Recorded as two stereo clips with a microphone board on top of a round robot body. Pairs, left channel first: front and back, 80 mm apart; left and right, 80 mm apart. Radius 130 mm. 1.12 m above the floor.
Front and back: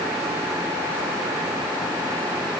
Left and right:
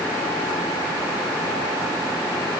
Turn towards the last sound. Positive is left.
No sound to turn to.